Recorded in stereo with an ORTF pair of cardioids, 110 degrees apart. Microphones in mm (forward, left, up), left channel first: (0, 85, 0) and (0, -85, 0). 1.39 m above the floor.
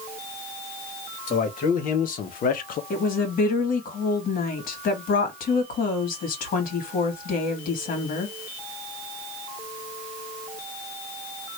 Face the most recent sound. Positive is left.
turn(degrees=60)